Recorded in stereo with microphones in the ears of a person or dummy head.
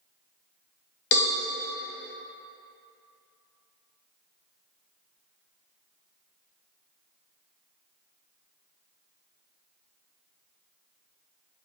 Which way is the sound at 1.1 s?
70° left (ahead or behind).